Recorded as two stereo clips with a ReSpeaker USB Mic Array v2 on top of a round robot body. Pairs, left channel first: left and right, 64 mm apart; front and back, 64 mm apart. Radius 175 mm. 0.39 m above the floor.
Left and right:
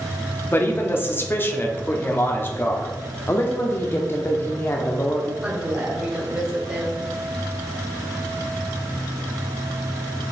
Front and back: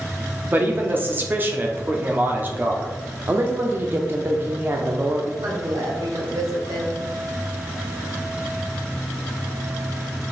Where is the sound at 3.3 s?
135° left, 1.1 m.